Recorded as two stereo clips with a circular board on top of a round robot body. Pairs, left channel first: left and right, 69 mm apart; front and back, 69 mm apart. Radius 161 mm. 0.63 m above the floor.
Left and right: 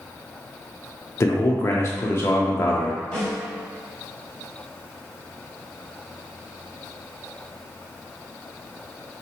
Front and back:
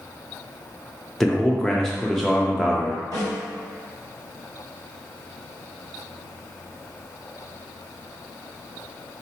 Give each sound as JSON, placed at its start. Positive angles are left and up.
{"t": 1.2, "sound": "a man speaking", "azimuth_deg": 85, "distance_m": 0.6}
{"t": 3.1, "sound": "a snare drum", "azimuth_deg": 165, "distance_m": 1.9}